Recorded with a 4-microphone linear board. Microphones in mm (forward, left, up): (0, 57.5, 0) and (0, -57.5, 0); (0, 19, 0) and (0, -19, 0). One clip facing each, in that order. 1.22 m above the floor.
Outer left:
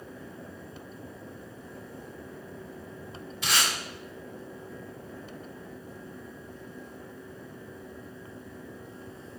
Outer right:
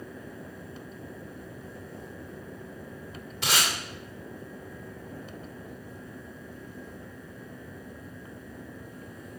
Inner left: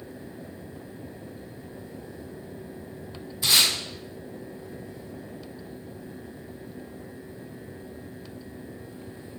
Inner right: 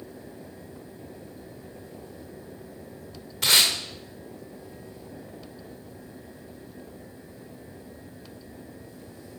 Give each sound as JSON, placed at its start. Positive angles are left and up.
{"t": 3.4, "sound": "tape being pulled", "side_deg": -75, "distance_m": 2.5}